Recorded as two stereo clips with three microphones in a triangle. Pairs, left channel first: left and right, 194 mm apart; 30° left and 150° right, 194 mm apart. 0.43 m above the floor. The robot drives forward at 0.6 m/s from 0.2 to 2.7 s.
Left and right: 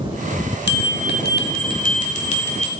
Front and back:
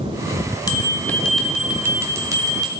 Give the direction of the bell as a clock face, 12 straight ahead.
9 o'clock.